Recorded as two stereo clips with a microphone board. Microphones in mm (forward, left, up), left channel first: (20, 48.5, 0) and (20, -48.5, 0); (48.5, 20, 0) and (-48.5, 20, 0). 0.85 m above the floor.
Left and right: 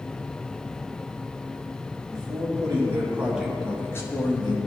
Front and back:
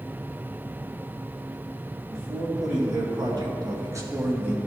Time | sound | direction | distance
2.1 | a man speaking | 130° right | 2.0 m